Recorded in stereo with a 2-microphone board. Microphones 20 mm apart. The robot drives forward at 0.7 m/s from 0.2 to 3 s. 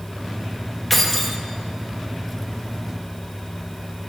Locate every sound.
0.9 s keys jangling: 5° left (ahead or behind), 1.8 m